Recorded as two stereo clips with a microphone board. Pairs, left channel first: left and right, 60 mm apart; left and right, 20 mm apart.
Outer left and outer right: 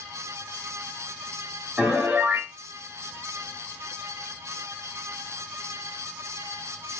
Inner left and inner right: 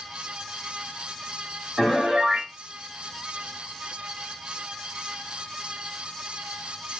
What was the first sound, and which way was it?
A piano, 25° right (ahead or behind).